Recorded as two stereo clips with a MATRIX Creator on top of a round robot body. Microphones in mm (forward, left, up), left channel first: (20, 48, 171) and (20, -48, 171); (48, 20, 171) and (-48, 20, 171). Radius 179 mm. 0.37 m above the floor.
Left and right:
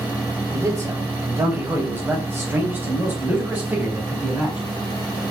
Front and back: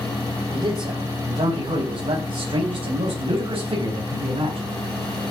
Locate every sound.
0.5 s a man speaking: 145° right, 3.5 m; by 4.7 s 165° right, 5.5 m